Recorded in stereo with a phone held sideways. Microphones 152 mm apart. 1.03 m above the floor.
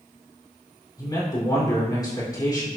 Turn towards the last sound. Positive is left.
turn(degrees=25)  # may be behind; listen again after turning